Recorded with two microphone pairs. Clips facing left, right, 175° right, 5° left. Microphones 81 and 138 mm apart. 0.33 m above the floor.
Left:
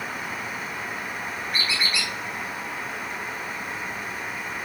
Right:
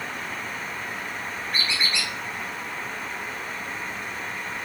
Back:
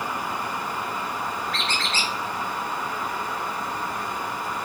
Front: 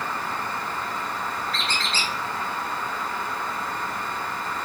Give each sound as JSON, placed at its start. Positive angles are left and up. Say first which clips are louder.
{"t": 1.5, "sound": "a squeak", "louder": "even, back 1 dB", "azimuth_deg": 10, "distance_m": 0.9}